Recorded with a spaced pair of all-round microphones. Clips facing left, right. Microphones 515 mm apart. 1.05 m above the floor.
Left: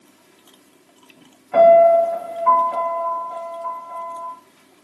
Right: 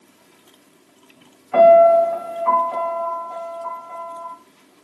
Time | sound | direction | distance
1.5 | a piano | 20° right (ahead or behind) | 2.5 m